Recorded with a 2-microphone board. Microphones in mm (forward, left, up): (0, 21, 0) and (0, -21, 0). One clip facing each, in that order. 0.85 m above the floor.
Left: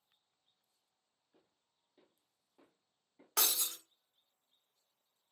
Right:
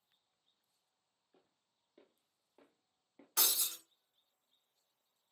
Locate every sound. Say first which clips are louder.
1.3 s footsteps: right 1 dB; 20° right (ahead or behind), 1.3 m; by 3.3 s 45° right (ahead or behind), 1.1 m
3.4 s breaking glass: left 1 dB; 65° left (ahead or behind), 0.9 m